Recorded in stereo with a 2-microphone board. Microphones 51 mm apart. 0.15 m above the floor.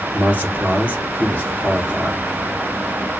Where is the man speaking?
30° right (ahead or behind), 1.9 m.